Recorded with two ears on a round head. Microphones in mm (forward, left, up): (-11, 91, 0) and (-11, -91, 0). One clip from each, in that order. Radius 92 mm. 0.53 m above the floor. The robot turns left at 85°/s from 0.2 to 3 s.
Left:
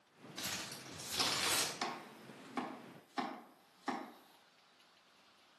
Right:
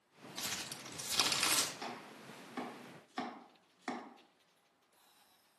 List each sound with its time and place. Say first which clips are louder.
0.4 s crumpling: right 1 dB; 30° right, 0.9 m; by 1.7 s 145° right, 0.9 m
1.8 s chopping: left 3 dB; 40° left (ahead or behind), 1.2 m; by 4.0 s 15° right (ahead or behind), 1.2 m